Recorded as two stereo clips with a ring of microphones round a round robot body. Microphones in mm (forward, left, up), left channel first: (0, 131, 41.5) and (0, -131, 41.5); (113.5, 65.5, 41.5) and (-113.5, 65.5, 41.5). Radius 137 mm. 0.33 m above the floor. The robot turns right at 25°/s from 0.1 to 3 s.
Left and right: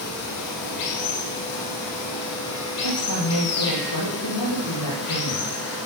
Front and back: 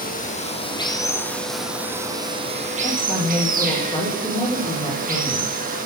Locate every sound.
0.0 s running water: 55° left, 6.5 m; by 5.9 s 125° left, 6.5 m
2.8 s a woman speaking: 65° left, 9.5 m; by 5.5 s 70° left, 9.5 m